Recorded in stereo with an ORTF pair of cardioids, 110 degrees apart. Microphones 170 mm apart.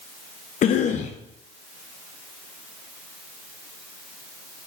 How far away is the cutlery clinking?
I don't hear cutlery clinking.